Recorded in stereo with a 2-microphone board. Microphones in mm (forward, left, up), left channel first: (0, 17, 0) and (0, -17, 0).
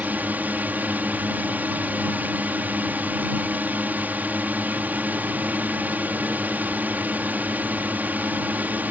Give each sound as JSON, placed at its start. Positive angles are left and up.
{"t": 0.0, "sound": "a drone", "side_deg": -55}